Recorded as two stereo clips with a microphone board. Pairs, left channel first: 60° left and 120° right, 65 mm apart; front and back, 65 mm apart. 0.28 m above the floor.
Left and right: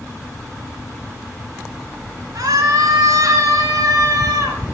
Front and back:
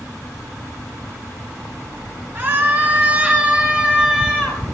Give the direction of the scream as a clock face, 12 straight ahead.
4 o'clock.